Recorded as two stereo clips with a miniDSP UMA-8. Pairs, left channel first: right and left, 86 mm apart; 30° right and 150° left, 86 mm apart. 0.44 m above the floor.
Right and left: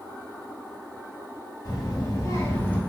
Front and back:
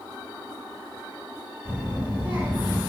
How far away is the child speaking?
About 1.3 m.